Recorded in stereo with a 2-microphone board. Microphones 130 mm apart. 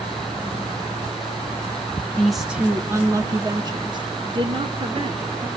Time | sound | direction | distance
2.2 | a woman speaking | 5° left (ahead or behind) | 0.9 m